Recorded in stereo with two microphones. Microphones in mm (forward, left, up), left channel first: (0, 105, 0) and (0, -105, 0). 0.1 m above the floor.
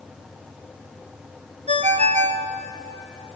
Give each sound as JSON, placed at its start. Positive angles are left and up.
{"t": 1.7, "sound": "a ringtone", "side_deg": -30, "distance_m": 1.4}